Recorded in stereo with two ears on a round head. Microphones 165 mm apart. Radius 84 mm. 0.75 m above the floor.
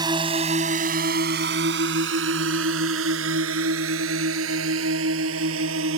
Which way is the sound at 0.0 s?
25° right (ahead or behind).